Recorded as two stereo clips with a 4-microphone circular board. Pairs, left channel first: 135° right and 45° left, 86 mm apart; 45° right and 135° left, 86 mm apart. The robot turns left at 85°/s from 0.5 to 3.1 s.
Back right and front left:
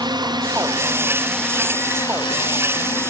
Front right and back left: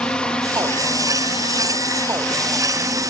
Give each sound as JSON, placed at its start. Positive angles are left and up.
{"t": 0.0, "sound": "a drone", "azimuth_deg": 30}